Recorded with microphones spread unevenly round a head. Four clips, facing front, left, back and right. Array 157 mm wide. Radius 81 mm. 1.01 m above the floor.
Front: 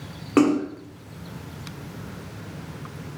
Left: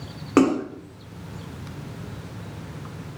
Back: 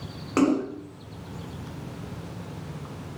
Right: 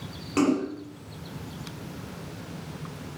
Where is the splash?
55° left, 1.5 m.